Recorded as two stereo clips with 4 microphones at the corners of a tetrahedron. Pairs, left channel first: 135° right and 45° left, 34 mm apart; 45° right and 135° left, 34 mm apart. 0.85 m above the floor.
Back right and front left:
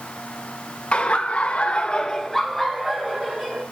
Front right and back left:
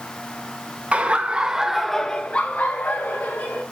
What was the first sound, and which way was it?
Laughter, straight behind.